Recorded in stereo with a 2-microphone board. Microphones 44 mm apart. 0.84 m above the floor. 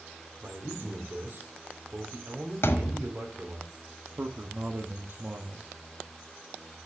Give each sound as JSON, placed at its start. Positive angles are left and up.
{"t": 0.4, "sound": "a man speaking", "side_deg": -45, "distance_m": 2.0}
{"t": 2.6, "sound": "a thud", "side_deg": 60, "distance_m": 1.4}
{"t": 4.2, "sound": "a man speaking", "side_deg": -50, "distance_m": 0.9}